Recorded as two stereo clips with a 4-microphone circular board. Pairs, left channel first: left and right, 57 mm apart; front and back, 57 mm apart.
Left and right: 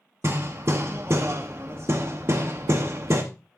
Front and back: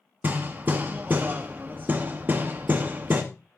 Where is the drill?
I don't hear a drill.